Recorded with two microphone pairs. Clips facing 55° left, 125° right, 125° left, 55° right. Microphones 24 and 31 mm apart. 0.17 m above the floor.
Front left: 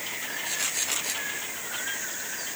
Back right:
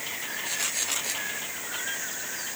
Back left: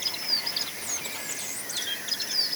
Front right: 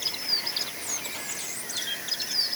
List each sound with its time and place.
Only background noise.